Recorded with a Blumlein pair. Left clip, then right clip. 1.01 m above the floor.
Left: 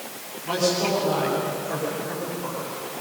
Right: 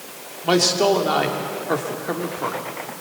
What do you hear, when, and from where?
0.4 s a man speaking: 35° right, 3.5 m